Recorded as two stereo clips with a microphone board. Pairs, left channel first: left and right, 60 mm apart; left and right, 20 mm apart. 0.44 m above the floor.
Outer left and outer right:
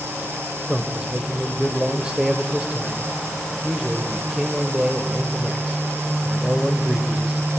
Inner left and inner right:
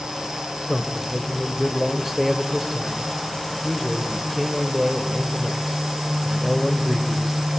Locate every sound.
0.7 s a man speaking: 15° right (ahead or behind), 1.8 m